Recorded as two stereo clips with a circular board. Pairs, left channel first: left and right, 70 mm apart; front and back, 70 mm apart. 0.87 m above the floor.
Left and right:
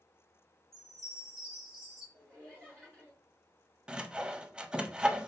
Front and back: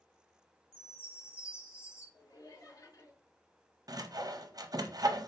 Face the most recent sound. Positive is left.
turn(degrees=-170)